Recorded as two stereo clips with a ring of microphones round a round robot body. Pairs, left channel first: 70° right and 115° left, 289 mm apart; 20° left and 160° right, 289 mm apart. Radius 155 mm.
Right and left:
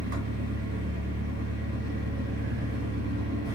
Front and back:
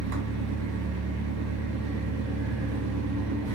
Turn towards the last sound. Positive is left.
turn(degrees=170)